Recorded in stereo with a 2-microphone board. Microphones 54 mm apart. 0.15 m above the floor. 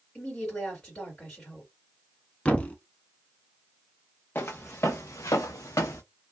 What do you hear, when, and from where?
0.1 s a woman speaking: 30° left (ahead or behind), 2.0 m
2.5 s a thud: 25° left (ahead or behind), 0.6 m
4.3 s footsteps: 40° left (ahead or behind), 0.9 m; by 6.0 s 65° left (ahead or behind), 0.6 m